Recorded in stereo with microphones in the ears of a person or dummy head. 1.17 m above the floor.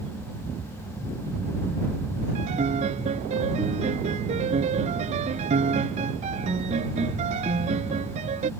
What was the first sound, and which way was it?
A piano, 40° right (ahead or behind).